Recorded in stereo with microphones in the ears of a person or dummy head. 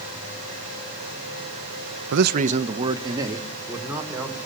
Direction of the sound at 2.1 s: 65° right (ahead or behind).